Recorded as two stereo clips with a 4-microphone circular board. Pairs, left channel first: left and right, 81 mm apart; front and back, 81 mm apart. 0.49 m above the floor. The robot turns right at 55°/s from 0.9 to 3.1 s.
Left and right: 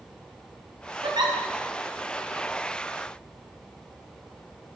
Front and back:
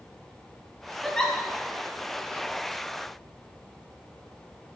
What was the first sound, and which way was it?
A giggle, 90° right.